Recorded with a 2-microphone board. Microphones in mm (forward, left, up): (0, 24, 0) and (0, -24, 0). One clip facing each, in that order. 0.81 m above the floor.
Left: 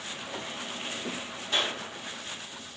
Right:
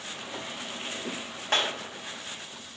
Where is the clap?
65° right (ahead or behind), 3.5 m.